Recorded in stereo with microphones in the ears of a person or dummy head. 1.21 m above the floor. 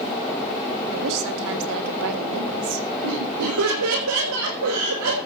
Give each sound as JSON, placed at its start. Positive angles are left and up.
{"t": 0.9, "sound": "a woman speaking", "side_deg": -70, "distance_m": 2.5}
{"t": 3.0, "sound": "laughter", "side_deg": -80, "distance_m": 6.0}